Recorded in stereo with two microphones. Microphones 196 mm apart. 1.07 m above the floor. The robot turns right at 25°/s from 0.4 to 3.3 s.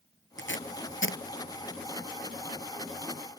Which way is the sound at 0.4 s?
75° left (ahead or behind).